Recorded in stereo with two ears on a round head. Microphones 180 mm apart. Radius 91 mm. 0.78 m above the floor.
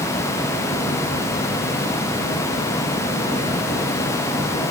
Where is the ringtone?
I don't hear a ringtone.